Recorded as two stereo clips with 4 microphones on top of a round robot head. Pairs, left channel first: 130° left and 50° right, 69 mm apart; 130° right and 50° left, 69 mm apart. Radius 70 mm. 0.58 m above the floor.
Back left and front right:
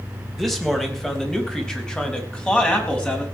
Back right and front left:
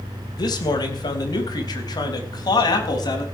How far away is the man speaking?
About 3.5 m.